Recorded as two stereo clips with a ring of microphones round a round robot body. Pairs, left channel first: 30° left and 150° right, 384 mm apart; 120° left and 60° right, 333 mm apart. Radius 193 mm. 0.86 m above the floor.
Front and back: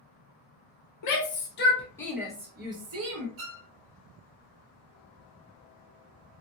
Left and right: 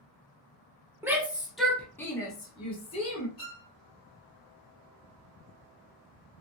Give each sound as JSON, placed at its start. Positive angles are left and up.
{"t": 1.0, "sound": "a shout", "azimuth_deg": 20, "distance_m": 0.9}
{"t": 3.4, "sound": "a violin", "azimuth_deg": -160, "distance_m": 0.9}